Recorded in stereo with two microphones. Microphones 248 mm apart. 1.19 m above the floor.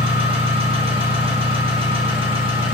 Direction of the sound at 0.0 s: 20° right (ahead or behind).